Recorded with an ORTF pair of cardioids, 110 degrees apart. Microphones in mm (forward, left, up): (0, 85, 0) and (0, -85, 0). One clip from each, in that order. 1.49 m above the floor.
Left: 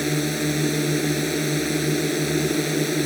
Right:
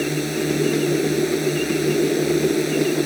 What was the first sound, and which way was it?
A drone, 10° left.